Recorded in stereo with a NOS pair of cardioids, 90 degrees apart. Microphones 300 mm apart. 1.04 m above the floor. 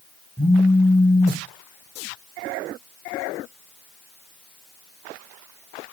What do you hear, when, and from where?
0.4 s a phone buzzing: 5° left, 0.6 m